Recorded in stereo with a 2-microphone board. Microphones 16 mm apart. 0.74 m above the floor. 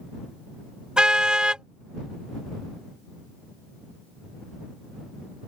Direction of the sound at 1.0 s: 75° right (ahead or behind).